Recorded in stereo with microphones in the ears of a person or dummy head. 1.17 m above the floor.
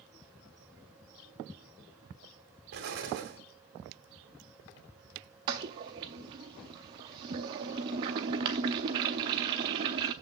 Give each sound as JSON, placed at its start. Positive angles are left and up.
{"t": 2.7, "sound": "an explosion", "side_deg": -60, "distance_m": 2.0}
{"t": 5.5, "sound": "a toilet flushing", "side_deg": -25, "distance_m": 0.6}